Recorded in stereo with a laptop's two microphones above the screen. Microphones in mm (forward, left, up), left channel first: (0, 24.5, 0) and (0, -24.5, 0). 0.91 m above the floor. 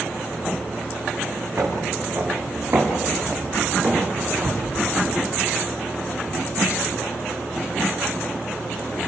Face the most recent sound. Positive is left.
turn(degrees=-35)  # may be behind; listen again after turning